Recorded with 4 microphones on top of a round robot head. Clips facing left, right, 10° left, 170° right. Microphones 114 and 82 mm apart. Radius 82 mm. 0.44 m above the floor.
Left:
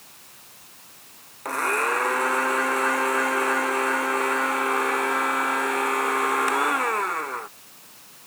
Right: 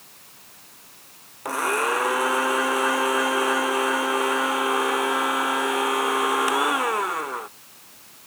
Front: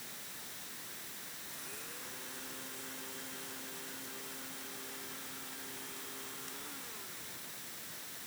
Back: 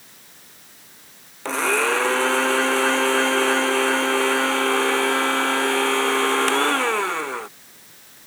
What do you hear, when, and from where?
1.4 s a blender: 170° right